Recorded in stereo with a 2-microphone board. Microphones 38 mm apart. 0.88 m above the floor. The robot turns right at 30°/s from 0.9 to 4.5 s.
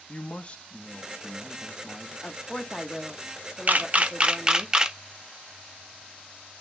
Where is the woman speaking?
145° left, 0.8 m; by 4.7 s 145° right, 0.8 m.